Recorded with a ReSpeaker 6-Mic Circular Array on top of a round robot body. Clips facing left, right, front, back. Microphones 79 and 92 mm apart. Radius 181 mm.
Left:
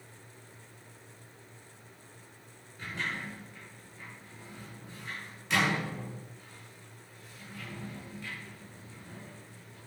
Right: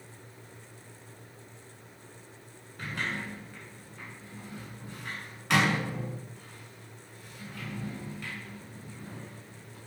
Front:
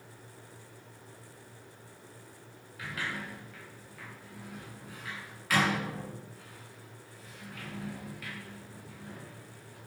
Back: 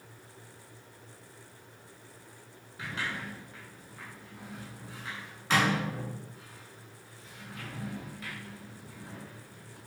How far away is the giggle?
No giggle in this recording.